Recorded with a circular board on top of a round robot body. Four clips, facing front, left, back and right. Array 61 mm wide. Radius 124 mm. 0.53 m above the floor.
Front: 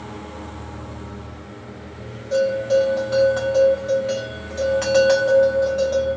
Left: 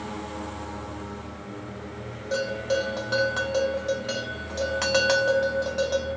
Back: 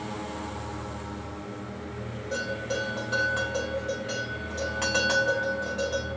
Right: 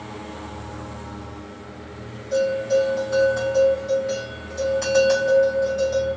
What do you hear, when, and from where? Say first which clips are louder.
2.3 s a bell: right 6 dB, front 13 dB; 80° left, 1.5 m